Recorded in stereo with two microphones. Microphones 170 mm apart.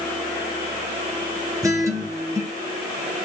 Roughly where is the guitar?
Centre.